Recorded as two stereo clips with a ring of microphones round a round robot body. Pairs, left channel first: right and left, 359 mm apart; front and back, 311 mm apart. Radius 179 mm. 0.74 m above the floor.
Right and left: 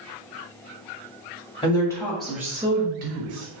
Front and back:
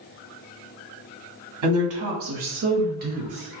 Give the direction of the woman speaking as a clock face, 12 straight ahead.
5 o'clock.